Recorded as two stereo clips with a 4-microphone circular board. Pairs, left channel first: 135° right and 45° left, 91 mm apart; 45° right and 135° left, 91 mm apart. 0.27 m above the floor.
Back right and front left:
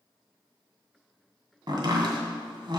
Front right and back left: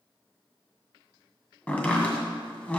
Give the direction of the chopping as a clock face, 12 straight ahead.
11 o'clock.